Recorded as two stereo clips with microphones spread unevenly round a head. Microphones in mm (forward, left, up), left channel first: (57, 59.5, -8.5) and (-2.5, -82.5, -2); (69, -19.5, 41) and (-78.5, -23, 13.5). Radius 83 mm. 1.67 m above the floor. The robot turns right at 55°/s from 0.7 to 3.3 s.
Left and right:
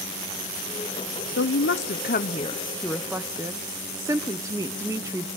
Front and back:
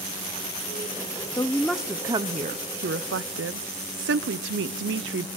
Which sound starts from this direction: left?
A woman speaking, at 1.4 s.